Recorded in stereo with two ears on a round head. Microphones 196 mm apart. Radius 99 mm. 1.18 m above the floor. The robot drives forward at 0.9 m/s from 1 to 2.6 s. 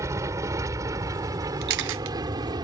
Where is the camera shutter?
45° right (ahead or behind); by 2.1 s 65° right (ahead or behind).